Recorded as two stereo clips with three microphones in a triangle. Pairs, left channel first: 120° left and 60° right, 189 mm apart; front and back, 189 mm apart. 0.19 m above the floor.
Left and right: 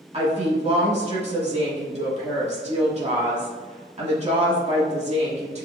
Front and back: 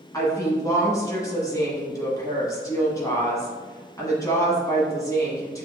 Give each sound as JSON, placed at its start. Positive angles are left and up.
{"t": 0.1, "sound": "a woman speaking", "azimuth_deg": -60, "distance_m": 1.2}